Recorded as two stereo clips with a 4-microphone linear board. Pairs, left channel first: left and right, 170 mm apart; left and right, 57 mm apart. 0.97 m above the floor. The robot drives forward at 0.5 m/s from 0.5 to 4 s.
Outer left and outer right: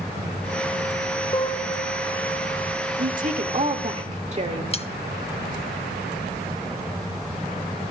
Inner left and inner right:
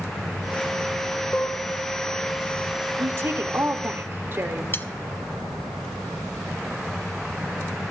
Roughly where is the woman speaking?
Right.